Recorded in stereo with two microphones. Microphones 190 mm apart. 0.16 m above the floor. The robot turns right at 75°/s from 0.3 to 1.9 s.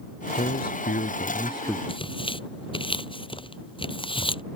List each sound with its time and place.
0.4 s a man speaking: 65° left; by 1.8 s 170° left
1.9 s tearing paper: 25° left (ahead or behind)